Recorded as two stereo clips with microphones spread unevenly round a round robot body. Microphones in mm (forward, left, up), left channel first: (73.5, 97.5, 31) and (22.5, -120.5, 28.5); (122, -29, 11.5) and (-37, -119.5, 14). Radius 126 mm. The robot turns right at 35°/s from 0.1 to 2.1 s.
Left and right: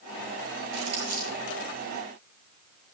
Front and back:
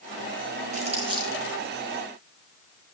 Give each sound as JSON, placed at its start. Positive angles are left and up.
{"t": 0.7, "sound": "crumpling", "azimuth_deg": -100, "distance_m": 7.0}